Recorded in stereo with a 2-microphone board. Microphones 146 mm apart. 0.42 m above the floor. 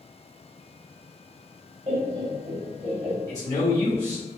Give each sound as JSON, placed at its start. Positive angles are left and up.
{"t": 1.9, "sound": "laughter", "side_deg": -45, "distance_m": 1.2}
{"t": 3.3, "sound": "a man speaking", "side_deg": 25, "distance_m": 1.0}